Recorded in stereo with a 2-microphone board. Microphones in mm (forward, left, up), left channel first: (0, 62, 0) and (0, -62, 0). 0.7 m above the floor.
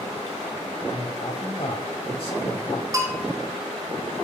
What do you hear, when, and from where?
0.9 s a man speaking: 50° left (ahead or behind), 5 m
2.9 s a bell: 25° right (ahead or behind), 5.5 m